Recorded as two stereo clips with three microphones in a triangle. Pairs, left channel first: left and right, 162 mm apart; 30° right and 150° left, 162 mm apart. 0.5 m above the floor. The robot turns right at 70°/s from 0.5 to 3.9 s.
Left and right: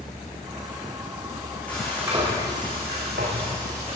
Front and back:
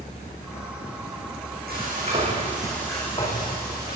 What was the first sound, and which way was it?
Frying, 170° left.